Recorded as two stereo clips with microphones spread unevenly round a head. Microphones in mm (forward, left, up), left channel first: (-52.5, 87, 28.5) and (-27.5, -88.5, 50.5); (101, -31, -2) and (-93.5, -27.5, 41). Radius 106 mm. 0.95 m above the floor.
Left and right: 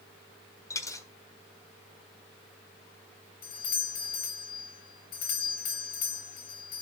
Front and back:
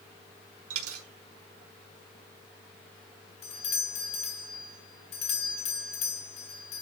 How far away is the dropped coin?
About 1.5 m.